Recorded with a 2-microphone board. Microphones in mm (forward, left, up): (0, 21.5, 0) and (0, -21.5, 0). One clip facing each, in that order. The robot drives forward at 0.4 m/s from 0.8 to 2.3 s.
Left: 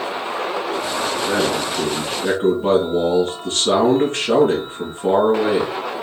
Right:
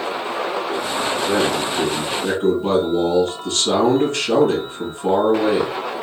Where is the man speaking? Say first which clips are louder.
Right 1 dB; 35° left (ahead or behind), 2 m; by 6.0 s 40° left (ahead or behind), 1.8 m.